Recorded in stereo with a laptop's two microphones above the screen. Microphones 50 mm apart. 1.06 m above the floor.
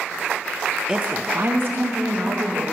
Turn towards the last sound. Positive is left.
turn(degrees=-65)  # may be behind; listen again after turning